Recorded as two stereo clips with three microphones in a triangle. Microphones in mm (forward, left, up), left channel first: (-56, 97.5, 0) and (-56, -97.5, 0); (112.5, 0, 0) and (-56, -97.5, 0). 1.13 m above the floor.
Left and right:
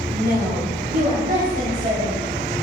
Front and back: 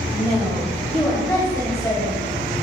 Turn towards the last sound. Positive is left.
turn(degrees=-35)